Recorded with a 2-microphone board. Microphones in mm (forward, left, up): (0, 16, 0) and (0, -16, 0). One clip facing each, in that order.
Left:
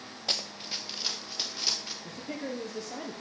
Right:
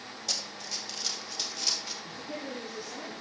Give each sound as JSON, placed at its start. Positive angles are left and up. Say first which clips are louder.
{"t": 0.3, "sound": "running footsteps", "louder": "left 3 dB", "side_deg": 40, "distance_m": 1.3}
{"t": 2.0, "sound": "a man speaking", "louder": "left 1 dB", "side_deg": 55, "distance_m": 2.5}